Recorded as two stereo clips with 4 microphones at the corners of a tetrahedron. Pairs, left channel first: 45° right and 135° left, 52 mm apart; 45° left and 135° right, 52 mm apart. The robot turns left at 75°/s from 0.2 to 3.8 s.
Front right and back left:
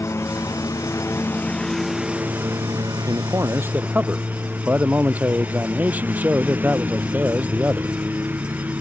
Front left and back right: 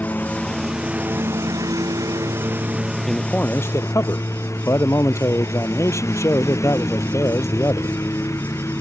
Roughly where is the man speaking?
Behind left.